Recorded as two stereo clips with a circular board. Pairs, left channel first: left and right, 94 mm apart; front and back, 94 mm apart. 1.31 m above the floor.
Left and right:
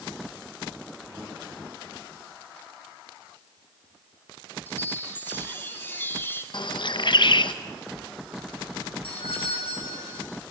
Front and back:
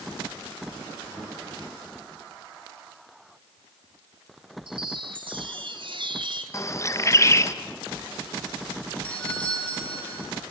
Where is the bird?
60° left, 1.0 m.